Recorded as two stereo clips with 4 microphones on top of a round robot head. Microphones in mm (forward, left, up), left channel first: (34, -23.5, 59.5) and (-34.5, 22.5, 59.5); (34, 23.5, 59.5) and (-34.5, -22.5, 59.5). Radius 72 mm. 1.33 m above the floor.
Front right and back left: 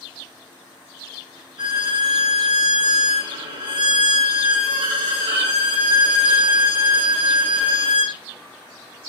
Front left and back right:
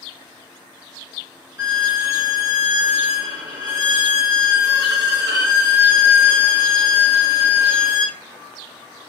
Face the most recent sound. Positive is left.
turn(degrees=170)